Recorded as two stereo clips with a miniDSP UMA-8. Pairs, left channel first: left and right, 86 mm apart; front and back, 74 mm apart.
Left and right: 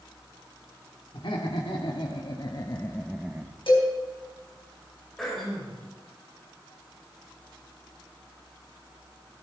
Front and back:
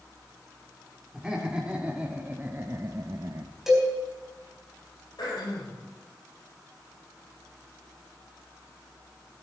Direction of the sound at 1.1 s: 100° left.